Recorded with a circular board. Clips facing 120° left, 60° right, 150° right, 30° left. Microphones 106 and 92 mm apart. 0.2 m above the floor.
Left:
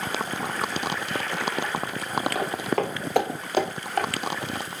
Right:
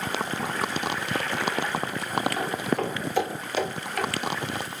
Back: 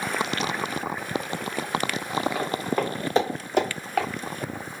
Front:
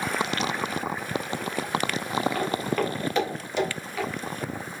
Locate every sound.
2.4 s footsteps: 130° left, 3.5 m; by 4.1 s 175° left, 4 m